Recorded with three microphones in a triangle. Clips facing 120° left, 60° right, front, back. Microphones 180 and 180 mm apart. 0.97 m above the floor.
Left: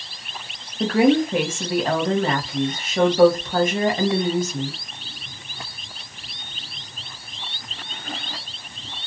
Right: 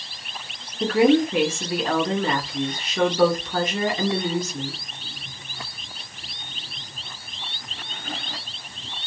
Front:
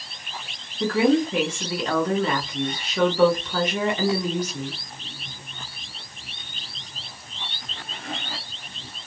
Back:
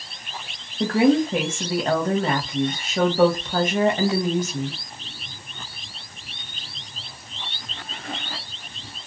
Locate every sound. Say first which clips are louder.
0.8 s a woman speaking: even, back 2 dB; 150° left, 1.4 m